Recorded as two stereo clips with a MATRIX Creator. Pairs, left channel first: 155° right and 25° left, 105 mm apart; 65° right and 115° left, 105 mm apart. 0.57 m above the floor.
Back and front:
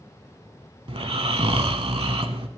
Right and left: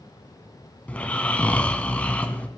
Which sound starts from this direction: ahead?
Snoring, at 0.9 s.